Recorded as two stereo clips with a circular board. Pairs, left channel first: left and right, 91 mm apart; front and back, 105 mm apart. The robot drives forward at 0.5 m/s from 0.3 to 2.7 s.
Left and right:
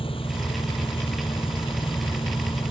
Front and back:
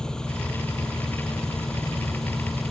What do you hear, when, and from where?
0.0 s an engine running: 85° left